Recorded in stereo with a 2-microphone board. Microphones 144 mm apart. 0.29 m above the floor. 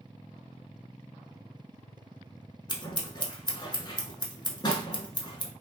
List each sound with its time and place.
2.7 s scissors: 35° left (ahead or behind), 0.6 m